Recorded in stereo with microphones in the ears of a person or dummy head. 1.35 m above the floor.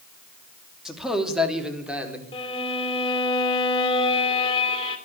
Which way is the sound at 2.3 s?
30° left (ahead or behind).